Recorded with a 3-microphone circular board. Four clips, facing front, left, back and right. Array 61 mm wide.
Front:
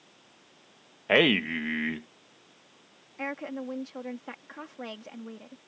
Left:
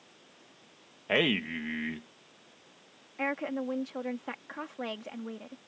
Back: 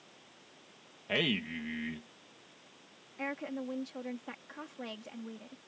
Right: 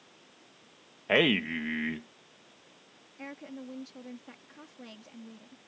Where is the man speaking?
15° right.